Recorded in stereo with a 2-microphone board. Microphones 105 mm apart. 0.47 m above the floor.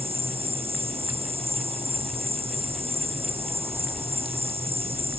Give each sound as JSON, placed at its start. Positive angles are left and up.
{"t": 0.0, "sound": "an insect", "side_deg": -70}